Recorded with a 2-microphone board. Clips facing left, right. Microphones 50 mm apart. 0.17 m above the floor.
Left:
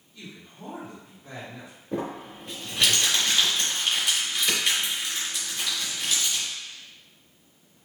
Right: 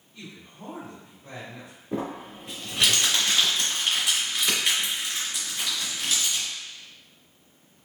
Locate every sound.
0.1 s a man speaking: 25° right (ahead or behind), 1.7 m
1.9 s crumpling: 10° right (ahead or behind), 1.5 m